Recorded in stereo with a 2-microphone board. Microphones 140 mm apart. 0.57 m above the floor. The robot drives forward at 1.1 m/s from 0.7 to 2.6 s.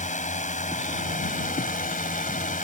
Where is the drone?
65° left (ahead or behind); by 2.6 s 70° left (ahead or behind).